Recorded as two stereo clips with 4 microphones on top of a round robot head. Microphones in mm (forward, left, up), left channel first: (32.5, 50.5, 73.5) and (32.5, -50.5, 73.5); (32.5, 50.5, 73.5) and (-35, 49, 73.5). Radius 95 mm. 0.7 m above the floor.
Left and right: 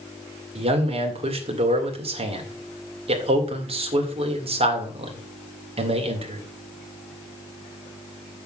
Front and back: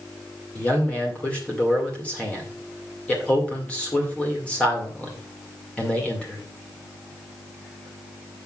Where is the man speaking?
70° right, 2 m.